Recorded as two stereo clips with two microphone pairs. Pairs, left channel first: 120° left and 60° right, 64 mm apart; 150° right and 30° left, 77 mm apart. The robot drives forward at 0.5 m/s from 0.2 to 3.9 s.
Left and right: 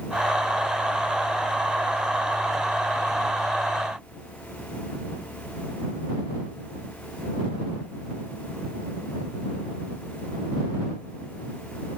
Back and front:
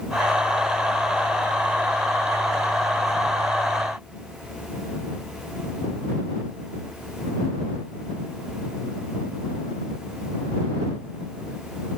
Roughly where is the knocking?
I don't hear knocking.